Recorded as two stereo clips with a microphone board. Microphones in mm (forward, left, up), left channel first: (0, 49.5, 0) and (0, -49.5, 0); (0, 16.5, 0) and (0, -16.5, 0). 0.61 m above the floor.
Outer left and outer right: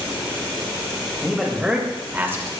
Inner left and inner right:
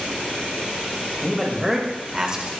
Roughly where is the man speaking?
Centre.